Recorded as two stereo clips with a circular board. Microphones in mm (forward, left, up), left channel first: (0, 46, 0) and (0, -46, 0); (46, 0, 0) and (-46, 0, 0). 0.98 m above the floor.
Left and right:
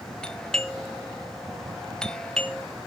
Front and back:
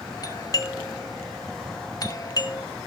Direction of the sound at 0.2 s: 15° left.